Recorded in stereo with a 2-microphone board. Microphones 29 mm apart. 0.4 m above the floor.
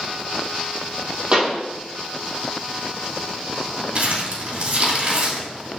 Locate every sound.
1.3 s a pop: 40° right (ahead or behind), 3.5 m
4.0 s crumpling: 50° right (ahead or behind), 2.5 m